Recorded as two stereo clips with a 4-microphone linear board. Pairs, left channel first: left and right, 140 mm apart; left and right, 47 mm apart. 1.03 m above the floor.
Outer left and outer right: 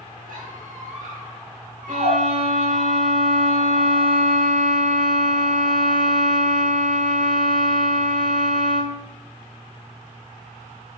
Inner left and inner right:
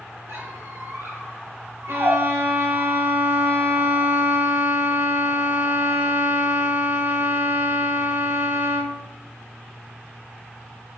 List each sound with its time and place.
0.3 s a squeak: 80° right, 3.5 m
1.9 s a violin: 70° right (ahead or behind), 1.9 m